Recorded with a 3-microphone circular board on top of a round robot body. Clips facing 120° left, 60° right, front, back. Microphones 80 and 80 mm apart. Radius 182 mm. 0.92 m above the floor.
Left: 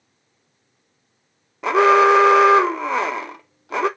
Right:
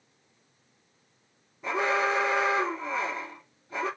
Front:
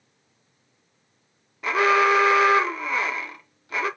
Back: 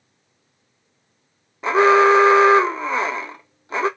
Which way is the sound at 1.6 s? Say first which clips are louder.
Left 13 dB, back 6 dB; 120° left.